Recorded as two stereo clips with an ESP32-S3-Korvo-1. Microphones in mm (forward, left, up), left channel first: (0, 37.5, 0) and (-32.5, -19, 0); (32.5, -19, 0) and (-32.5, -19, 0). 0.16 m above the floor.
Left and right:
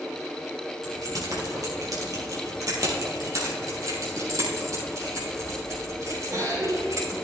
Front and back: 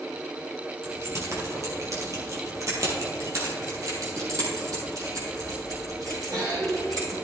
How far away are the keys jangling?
About 3 m.